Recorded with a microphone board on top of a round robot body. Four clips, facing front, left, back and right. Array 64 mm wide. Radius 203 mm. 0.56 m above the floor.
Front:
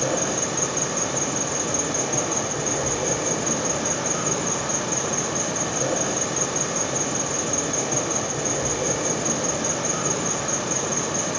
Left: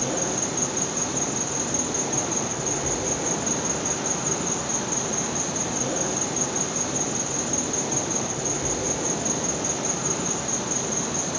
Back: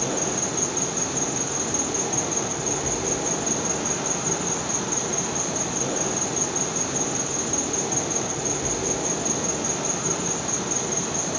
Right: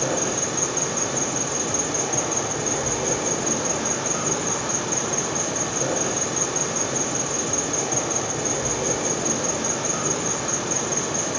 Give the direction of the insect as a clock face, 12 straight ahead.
2 o'clock.